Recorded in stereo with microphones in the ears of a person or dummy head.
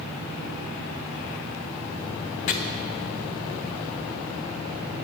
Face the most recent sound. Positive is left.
turn(degrees=35)  # may be behind; listen again after turning